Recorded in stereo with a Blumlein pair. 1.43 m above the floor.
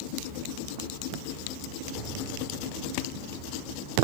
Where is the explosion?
15° right, 3 m.